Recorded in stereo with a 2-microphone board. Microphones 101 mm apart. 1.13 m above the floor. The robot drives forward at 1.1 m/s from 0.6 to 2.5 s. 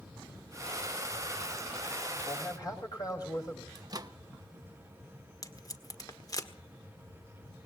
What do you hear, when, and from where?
2.3 s a man speaking: 35° left (ahead or behind), 6.5 m; by 3.6 s 40° left (ahead or behind), 6.5 m
3.8 s a microwave: 40° right (ahead or behind), 0.8 m
5.4 s tape being pulled: 35° left (ahead or behind), 1.5 m